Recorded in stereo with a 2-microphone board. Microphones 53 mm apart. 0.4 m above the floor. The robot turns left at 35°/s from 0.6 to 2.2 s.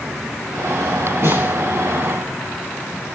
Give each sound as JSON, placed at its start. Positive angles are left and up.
{"t": 1.2, "sound": "a snare drum", "side_deg": -55, "distance_m": 7.5}